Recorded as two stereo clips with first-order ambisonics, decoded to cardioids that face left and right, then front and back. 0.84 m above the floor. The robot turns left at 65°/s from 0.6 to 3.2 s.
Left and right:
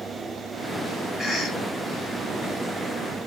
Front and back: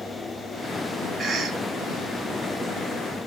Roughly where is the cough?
Behind left.